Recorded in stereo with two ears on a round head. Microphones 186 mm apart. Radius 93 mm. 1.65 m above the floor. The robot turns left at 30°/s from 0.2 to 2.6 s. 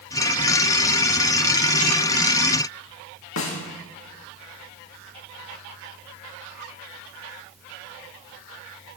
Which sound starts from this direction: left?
A snare drum, at 3.4 s.